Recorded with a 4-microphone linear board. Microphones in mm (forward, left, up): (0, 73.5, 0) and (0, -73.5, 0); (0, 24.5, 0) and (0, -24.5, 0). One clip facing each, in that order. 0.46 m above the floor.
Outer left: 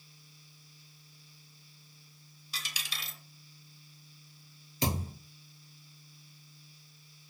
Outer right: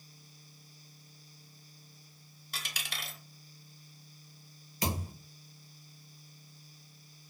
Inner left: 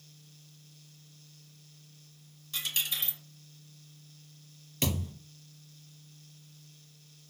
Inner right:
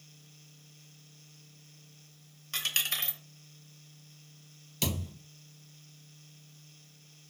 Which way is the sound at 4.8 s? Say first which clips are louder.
Outer left 2 dB, inner left 2 dB; 30° left (ahead or behind).